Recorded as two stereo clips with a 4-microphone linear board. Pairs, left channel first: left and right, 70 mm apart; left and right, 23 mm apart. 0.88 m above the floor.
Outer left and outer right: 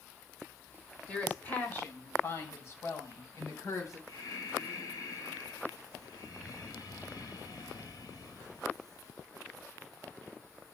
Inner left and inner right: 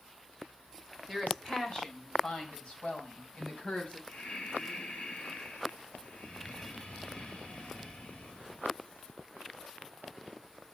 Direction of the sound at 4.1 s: 80° left.